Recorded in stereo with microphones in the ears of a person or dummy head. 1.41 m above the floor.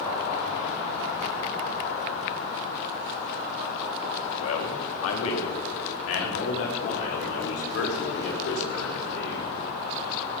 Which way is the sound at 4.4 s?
80° left.